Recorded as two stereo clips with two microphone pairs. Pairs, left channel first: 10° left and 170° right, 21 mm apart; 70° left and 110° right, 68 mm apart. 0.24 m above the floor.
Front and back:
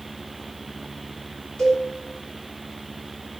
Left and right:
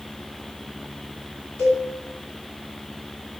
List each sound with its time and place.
1.6 s a cowbell: 10° left, 1.9 m